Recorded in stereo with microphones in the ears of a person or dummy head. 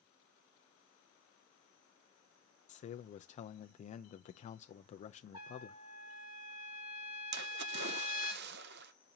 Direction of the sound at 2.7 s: 30° left (ahead or behind).